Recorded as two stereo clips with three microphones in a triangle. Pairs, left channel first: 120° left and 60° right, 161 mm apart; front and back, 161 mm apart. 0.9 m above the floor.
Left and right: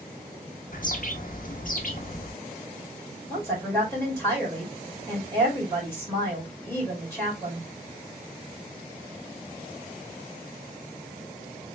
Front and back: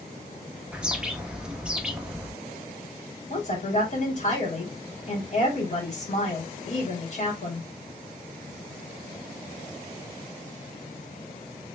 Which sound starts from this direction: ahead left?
A woman speaking, at 3.3 s.